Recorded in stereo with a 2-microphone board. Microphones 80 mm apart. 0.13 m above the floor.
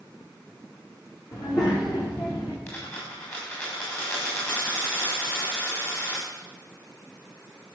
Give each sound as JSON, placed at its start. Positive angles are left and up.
{"t": 1.3, "sound": "a child speaking", "side_deg": 45, "distance_m": 7.5}
{"t": 2.7, "sound": "a dropped coin", "side_deg": 25, "distance_m": 7.5}